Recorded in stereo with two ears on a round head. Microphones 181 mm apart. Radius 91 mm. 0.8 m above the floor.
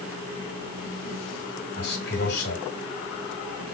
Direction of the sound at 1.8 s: 55° left (ahead or behind).